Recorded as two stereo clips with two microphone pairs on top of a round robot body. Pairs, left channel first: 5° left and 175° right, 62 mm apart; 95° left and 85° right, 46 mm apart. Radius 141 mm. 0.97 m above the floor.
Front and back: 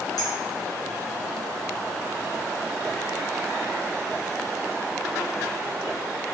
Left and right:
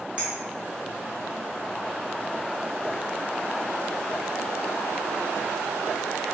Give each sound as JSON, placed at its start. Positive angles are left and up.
{"t": 0.2, "sound": "a clink", "azimuth_deg": -15, "distance_m": 1.1}